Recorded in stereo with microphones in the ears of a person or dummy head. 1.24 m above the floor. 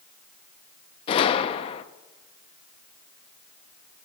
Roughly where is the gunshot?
Left.